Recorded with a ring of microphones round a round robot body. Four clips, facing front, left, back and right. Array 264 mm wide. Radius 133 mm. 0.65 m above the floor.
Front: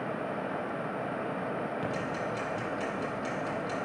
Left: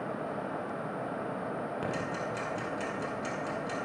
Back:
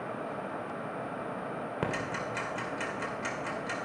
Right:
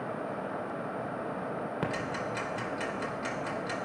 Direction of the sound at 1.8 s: 155° right.